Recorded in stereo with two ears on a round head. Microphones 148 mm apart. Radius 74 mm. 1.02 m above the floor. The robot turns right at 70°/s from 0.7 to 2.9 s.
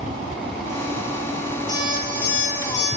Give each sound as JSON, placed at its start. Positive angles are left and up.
{"t": 1.7, "sound": "an alarm clock", "azimuth_deg": 25, "distance_m": 9.5}